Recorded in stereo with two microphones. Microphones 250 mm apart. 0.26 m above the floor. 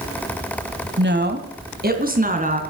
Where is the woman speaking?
45° right (ahead or behind), 1.3 m; by 2.6 s 30° right (ahead or behind), 2.5 m.